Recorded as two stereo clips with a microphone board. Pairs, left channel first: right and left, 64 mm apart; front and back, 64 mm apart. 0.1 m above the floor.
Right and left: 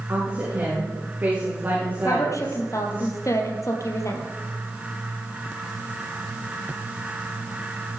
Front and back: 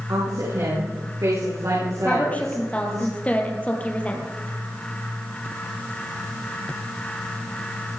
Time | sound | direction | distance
0.1 | a woman speaking | 150° left | 7.5 m
2.0 | a woman speaking | 65° right | 3 m